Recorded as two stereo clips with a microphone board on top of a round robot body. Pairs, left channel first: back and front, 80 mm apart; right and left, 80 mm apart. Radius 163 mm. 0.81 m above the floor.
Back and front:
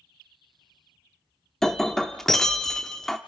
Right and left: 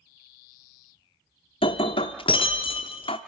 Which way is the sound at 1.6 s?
95° right.